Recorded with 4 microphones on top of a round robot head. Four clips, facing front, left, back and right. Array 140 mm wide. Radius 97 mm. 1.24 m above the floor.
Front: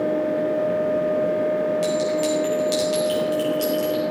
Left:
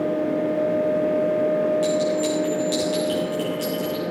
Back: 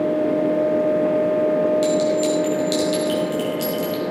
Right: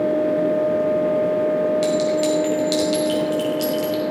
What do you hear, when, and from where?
1.8 s a clink: 100° right, 6 m